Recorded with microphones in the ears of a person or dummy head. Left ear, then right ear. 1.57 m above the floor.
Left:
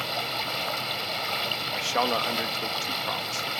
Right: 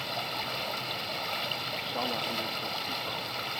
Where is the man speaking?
55° left (ahead or behind).